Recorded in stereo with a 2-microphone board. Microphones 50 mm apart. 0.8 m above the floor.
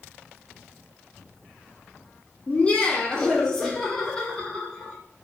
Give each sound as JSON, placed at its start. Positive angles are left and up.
{"t": 2.5, "sound": "laughter", "side_deg": 25, "distance_m": 0.9}